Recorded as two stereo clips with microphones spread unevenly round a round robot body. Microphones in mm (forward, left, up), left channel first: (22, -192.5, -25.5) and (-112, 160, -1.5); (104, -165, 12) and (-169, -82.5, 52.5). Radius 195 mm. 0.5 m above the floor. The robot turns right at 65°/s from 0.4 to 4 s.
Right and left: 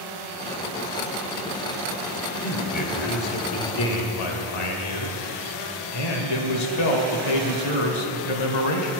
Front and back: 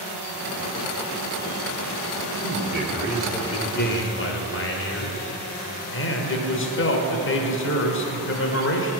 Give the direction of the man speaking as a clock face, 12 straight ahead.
5 o'clock.